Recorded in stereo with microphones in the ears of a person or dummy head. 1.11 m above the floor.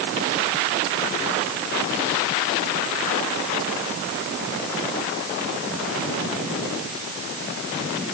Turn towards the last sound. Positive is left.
No sound to turn to.